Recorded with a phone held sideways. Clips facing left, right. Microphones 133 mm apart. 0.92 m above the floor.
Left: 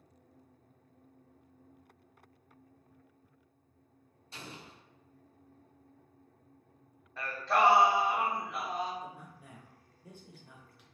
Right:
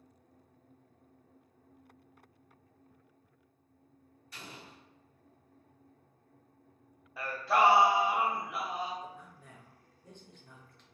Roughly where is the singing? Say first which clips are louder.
Right 1 dB; centre.